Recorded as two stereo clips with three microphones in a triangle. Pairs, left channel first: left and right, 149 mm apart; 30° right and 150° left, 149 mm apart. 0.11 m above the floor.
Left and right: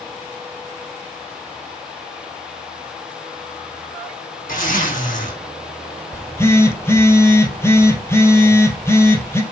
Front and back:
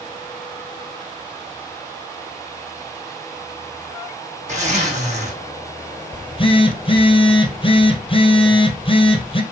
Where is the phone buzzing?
20° left, 1.4 m.